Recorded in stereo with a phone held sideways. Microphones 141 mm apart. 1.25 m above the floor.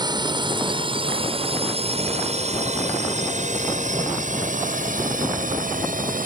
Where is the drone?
30° right (ahead or behind); by 6.2 s 75° right (ahead or behind).